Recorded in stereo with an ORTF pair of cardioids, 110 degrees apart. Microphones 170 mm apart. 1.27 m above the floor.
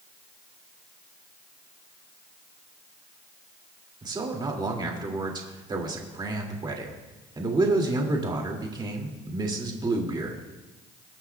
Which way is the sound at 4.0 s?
25° right.